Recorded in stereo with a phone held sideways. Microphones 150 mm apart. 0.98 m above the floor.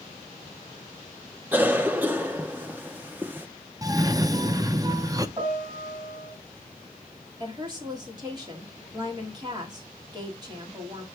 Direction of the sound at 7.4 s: 30° right (ahead or behind).